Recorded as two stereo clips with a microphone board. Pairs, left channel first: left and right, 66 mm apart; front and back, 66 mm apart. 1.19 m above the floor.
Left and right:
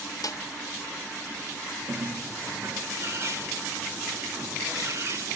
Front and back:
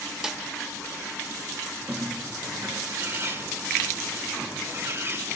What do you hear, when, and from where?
0.2 s a snare drum: 95° left, 0.6 m
1.9 s a bird: 130° right, 1.5 m